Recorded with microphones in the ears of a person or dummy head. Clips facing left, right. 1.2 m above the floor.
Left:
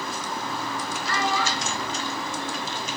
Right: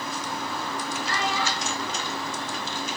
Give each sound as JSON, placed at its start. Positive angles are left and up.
{"t": 1.1, "sound": "a child speaking", "side_deg": 60, "distance_m": 2.0}